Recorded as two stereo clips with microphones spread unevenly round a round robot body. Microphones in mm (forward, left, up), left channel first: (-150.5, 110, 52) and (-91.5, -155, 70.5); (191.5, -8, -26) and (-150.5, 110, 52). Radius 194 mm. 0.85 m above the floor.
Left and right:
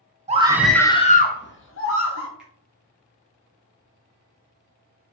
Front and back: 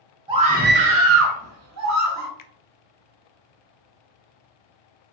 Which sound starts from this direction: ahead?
A finger snap, at 2.4 s.